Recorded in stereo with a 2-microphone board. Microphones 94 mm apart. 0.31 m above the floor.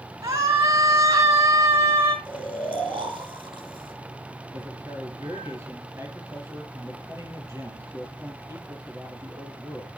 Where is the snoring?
70° right (ahead or behind), 4.5 m.